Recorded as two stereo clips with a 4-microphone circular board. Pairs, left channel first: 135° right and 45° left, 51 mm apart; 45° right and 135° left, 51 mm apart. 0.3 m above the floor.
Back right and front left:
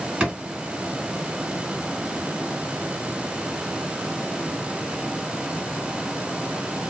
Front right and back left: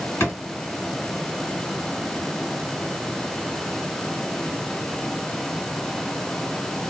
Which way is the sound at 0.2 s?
25° right.